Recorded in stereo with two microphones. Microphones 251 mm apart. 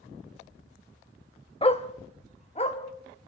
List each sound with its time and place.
1.6 s a dog barking: 25° left (ahead or behind), 1.0 m